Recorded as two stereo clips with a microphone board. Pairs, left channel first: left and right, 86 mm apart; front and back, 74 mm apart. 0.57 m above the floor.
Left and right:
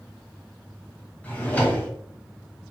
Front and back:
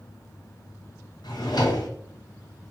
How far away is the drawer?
About 1.2 m.